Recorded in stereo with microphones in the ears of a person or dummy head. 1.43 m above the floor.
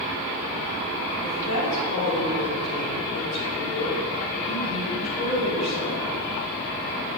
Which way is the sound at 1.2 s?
40° left (ahead or behind).